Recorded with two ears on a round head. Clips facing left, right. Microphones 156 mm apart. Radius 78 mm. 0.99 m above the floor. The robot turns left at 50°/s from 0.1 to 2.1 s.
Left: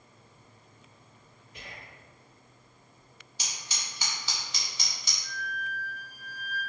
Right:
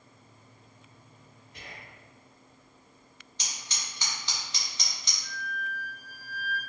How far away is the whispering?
About 1.6 m.